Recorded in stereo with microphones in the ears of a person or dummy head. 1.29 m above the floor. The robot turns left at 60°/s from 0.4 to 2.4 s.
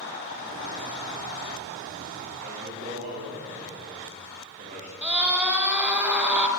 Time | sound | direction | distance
2.4 | a man speaking | 35° right (ahead or behind) | 2 m
5.0 | a scream | 10° right (ahead or behind) | 1.4 m